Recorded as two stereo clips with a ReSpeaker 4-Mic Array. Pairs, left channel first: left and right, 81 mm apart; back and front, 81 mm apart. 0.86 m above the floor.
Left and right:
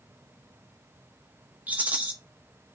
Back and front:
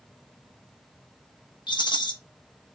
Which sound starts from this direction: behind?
A rattle, at 1.7 s.